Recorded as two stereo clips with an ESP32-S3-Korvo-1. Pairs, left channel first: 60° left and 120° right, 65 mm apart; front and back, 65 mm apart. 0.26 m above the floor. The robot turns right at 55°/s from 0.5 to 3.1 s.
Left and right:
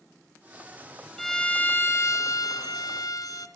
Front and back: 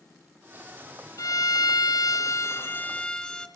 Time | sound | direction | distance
1.2 | a violin | 30° right | 1.4 m